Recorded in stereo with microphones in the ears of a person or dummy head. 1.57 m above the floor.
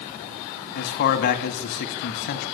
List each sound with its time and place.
0.8 s a man speaking: 50° left (ahead or behind), 2.5 m